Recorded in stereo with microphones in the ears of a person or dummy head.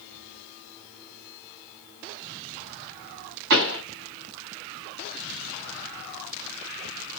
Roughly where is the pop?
Right.